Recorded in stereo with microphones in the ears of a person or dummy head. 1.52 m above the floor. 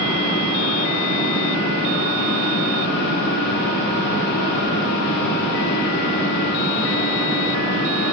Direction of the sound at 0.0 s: 65° left (ahead or behind).